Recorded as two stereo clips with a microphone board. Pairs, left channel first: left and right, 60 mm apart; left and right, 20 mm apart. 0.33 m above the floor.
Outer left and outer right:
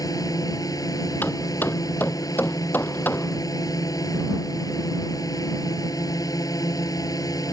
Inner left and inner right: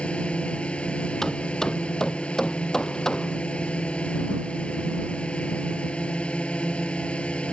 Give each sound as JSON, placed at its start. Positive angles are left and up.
{"t": 0.0, "sound": "a drone", "side_deg": 80}
{"t": 1.2, "sound": "hammering", "side_deg": 35}